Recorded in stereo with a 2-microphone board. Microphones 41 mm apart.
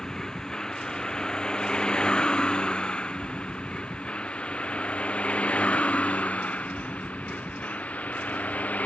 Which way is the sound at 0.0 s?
15° left (ahead or behind).